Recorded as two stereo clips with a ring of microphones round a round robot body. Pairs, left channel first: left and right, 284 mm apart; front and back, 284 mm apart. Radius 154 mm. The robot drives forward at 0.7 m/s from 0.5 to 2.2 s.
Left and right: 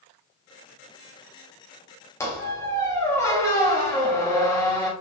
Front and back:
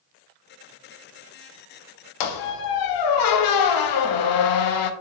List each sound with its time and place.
2.2 s a squeak: 10° left, 0.6 m